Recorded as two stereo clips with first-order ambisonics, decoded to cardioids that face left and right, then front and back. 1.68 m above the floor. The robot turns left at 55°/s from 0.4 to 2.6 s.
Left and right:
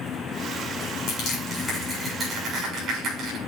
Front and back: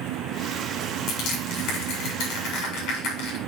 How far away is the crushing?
About 7.5 m.